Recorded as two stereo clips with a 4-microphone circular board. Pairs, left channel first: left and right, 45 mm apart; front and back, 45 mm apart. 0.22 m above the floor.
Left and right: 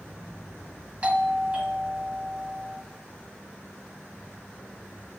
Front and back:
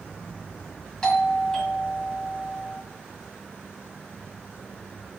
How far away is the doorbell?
About 1.6 m.